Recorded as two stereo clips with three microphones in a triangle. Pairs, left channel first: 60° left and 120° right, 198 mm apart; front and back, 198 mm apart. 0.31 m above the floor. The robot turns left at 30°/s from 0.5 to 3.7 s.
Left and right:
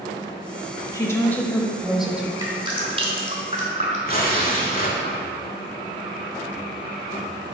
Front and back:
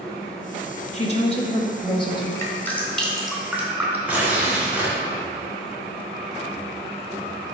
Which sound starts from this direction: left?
Tearing paper, at 4.1 s.